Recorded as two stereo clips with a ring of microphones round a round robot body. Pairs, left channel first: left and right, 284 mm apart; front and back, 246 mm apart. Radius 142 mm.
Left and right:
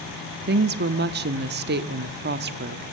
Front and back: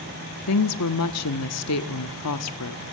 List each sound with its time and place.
0.5 s a woman speaking: 35° right, 1.3 m